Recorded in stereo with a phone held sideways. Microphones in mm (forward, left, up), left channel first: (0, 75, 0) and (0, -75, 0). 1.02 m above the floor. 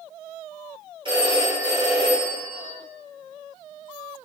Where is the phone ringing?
35° right (ahead or behind), 1.0 m.